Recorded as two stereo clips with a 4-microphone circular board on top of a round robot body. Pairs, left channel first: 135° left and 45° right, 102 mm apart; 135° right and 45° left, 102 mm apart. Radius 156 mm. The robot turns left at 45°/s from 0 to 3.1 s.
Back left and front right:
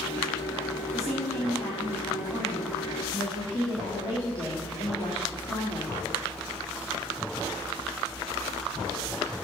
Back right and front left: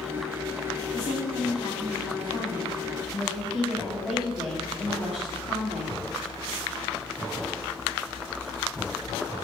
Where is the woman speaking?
130° right, 1.9 m; by 6.0 s 135° left, 1.9 m.